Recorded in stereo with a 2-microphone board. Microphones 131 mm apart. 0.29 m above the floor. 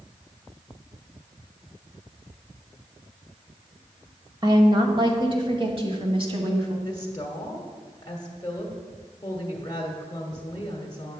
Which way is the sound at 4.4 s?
30° right (ahead or behind).